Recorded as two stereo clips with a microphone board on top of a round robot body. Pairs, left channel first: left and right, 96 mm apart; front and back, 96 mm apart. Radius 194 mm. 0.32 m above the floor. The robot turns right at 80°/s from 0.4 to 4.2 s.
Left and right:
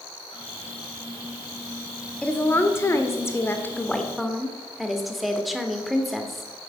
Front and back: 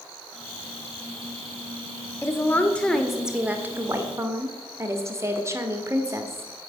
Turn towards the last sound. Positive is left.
turn(degrees=180)